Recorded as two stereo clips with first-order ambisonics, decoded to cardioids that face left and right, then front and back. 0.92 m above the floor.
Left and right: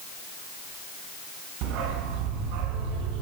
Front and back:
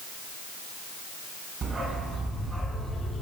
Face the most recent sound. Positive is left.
turn(degrees=-80)